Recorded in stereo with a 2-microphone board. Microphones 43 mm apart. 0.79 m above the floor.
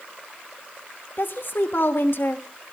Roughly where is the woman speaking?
Left.